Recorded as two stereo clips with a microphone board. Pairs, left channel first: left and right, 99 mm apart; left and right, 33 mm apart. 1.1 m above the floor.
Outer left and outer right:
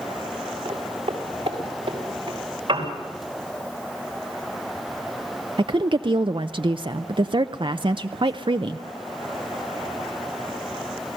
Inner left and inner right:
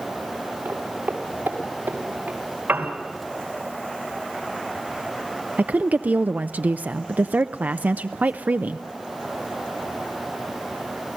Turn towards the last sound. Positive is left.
turn(degrees=-55)  # may be behind; listen again after turning